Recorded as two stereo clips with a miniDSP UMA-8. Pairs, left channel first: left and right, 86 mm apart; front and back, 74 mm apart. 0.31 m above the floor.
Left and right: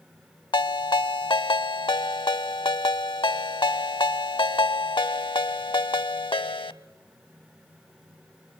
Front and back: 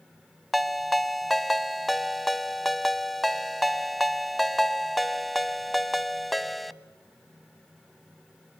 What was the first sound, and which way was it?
A ringtone, 90° left.